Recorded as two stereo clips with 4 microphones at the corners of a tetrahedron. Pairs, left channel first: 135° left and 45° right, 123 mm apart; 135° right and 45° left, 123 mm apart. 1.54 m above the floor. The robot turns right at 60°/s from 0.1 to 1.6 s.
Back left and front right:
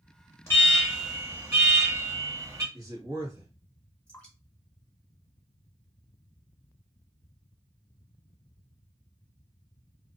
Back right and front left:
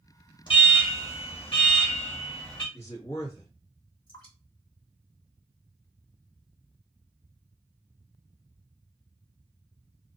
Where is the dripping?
150° right, 2 m.